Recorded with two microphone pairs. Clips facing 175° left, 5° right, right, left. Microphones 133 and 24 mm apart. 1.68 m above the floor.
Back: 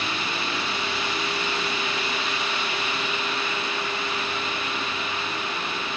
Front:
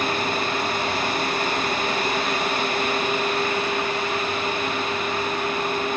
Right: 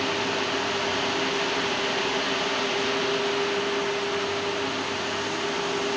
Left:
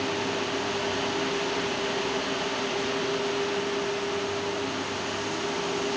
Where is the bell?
No bell in this recording.